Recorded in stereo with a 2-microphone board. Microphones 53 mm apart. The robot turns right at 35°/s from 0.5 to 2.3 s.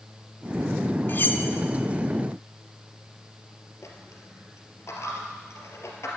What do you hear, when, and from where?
1.1 s cutlery clinking: 45° left (ahead or behind), 0.9 m; by 1.4 s 40° left (ahead or behind), 0.9 m
3.8 s a dropped coin: 65° left (ahead or behind), 2.5 m